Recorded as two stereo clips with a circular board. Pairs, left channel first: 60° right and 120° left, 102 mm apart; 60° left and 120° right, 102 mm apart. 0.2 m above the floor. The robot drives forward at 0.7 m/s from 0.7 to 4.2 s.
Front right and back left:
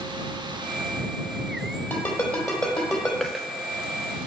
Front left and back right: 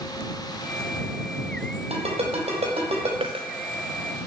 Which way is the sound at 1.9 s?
135° right.